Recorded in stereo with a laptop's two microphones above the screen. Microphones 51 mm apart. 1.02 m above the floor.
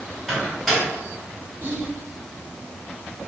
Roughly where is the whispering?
Right.